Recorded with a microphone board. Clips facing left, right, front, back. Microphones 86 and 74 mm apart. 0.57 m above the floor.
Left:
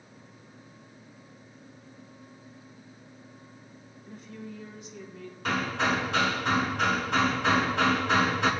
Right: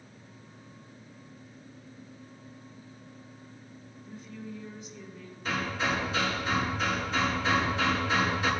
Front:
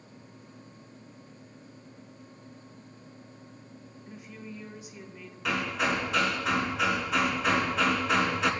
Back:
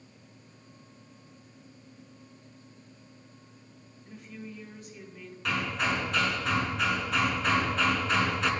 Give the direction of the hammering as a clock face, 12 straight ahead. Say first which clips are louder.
Left 3 dB, front 1 dB; 9 o'clock.